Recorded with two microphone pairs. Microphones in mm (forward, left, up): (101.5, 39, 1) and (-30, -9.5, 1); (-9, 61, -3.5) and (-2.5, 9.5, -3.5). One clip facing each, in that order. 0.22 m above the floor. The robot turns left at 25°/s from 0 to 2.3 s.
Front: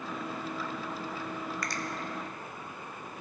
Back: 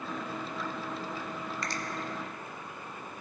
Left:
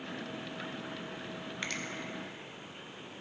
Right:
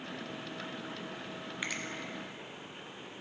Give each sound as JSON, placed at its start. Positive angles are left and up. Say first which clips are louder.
{"t": 1.6, "sound": "a finger snap", "louder": "even, right 1 dB", "azimuth_deg": -160, "distance_m": 0.8}